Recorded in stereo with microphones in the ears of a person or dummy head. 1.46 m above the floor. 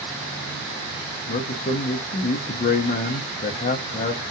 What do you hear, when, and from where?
1.3 s a man speaking: 40° left (ahead or behind), 0.6 m